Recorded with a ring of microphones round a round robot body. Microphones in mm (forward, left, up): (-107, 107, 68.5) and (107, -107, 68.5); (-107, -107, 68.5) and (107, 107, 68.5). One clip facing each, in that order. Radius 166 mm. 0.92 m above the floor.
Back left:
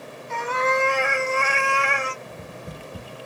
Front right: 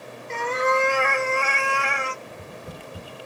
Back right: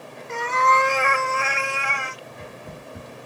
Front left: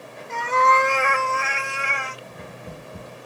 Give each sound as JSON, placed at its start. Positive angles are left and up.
{"t": 0.3, "sound": "a cat meowing", "azimuth_deg": -100, "distance_m": 0.9}
{"t": 2.2, "sound": "tapping", "azimuth_deg": 105, "distance_m": 1.4}